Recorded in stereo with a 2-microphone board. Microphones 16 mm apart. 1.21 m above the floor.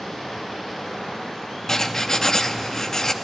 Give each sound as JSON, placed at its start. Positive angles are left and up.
{"t": 0.0, "sound": "running water", "side_deg": 80, "distance_m": 6.5}
{"t": 1.7, "sound": "writing", "side_deg": 35, "distance_m": 0.7}